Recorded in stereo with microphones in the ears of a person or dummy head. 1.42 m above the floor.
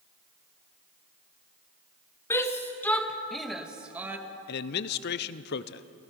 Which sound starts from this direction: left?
A man speaking, at 4.5 s.